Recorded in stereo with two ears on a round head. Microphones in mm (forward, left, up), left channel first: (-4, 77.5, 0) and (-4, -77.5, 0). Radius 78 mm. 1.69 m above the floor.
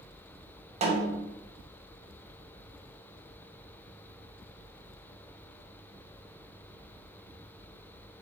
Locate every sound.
0.8 s a snare drum: 35° right (ahead or behind), 0.5 m